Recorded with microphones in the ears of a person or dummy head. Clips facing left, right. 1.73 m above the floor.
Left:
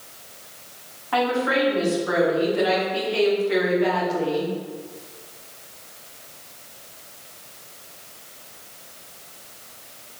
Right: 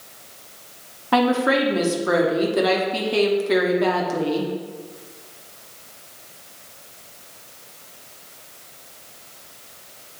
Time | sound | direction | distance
1.1 | a woman speaking | 60° right (ahead or behind) | 1.2 m